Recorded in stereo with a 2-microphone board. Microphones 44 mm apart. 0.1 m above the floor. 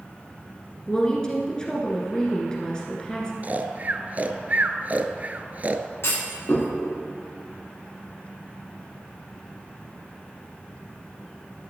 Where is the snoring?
40° right (ahead or behind), 0.6 m.